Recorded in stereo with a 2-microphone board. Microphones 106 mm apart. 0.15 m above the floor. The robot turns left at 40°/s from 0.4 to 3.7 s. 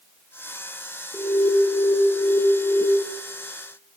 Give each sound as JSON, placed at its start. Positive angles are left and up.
{"t": 1.1, "sound": "an alarm", "azimuth_deg": 20, "distance_m": 4.5}